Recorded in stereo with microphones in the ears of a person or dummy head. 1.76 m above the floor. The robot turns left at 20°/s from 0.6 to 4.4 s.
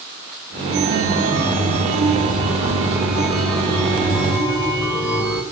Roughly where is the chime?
Behind right.